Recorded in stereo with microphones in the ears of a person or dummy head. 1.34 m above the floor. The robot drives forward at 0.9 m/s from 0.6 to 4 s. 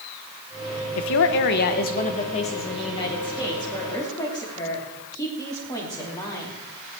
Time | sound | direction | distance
0.9 | a woman speaking | 85° left | 1.1 m